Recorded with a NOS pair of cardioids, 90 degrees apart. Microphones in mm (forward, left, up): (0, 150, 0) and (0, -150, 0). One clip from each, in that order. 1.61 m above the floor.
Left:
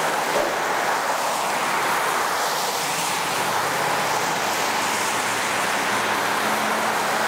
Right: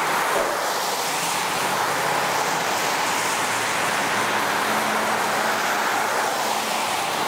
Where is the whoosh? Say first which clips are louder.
Even; 10° left, 1.1 m.